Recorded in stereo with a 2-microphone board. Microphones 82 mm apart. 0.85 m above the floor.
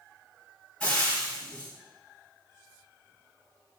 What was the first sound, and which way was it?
Frying, 10° left (ahead or behind).